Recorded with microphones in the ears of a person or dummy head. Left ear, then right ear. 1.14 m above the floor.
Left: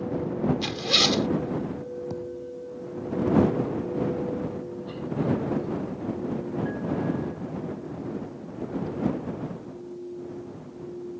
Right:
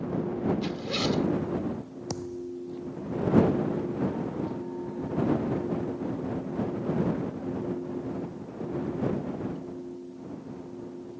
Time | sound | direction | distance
0.6 | a zipper | 30° left (ahead or behind) | ?
2.1 | a thud | 70° right (ahead or behind) | ?